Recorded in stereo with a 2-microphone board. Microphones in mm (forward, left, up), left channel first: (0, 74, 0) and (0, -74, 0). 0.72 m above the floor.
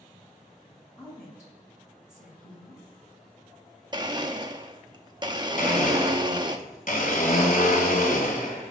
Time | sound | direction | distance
1.0 | a woman speaking | 15° left (ahead or behind) | 4 m
3.9 | a blender | 30° right (ahead or behind) | 0.7 m
5.6 | a blender | 65° left (ahead or behind) | 2.5 m